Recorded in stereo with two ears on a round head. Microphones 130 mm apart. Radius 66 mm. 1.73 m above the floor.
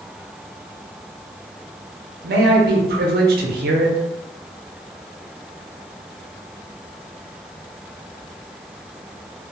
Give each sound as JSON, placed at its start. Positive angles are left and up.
{"t": 2.2, "sound": "a man speaking", "side_deg": -70, "distance_m": 0.7}